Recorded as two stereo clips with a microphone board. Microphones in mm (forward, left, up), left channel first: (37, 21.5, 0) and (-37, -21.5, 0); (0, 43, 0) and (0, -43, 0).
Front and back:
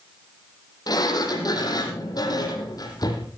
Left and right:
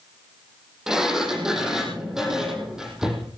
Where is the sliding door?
5° right, 5.5 m.